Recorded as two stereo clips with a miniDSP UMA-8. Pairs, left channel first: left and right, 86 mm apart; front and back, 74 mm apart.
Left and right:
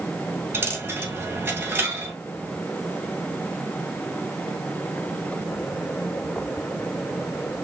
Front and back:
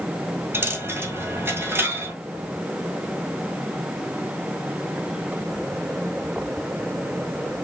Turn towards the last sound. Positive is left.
turn(degrees=-140)